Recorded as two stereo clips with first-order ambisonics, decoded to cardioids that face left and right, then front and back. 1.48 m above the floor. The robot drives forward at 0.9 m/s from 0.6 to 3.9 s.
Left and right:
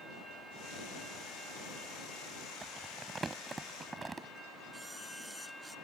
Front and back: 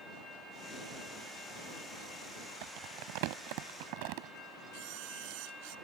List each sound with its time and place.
2.6 s crumpling: 170° right
4.7 s a camera shutter: straight behind